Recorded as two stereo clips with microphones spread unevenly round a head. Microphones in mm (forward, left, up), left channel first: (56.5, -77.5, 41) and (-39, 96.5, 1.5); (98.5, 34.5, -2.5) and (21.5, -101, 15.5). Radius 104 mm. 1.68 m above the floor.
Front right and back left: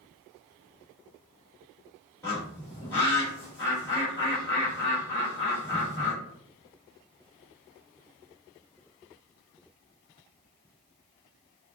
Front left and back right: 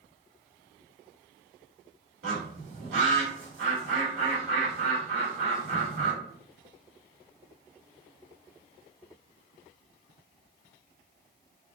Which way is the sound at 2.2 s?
140° right.